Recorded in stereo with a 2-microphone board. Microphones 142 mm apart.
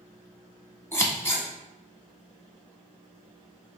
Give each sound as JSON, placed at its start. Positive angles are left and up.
{"t": 0.9, "sound": "scissors", "side_deg": 20, "distance_m": 1.6}